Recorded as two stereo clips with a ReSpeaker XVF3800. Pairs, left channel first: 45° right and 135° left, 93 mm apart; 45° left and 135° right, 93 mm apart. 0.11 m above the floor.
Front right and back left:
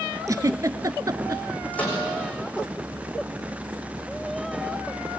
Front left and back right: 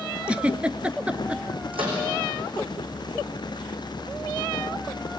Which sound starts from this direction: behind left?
A giggle, at 0.3 s.